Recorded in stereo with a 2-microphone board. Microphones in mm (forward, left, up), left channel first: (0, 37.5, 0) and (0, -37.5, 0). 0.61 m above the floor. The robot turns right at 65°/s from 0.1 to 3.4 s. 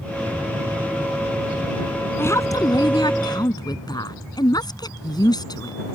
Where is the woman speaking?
35° left; by 5.8 s 110° left.